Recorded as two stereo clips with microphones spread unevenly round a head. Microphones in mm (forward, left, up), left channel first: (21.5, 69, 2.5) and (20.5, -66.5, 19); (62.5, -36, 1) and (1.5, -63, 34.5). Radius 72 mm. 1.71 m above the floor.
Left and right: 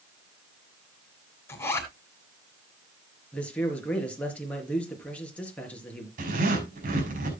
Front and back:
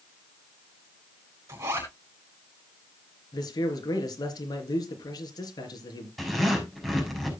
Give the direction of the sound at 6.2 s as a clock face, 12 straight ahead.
2 o'clock.